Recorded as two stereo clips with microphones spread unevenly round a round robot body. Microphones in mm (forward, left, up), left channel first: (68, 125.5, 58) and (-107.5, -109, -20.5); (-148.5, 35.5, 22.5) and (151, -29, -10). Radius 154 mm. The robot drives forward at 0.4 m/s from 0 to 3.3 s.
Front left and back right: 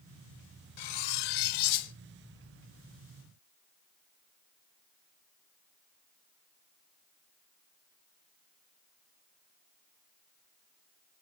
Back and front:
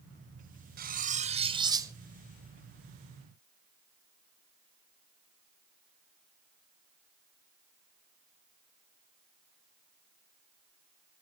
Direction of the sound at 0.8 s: 50° left.